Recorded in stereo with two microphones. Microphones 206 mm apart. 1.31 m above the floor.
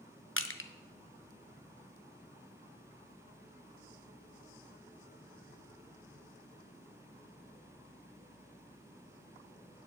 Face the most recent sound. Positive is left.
turn(degrees=80)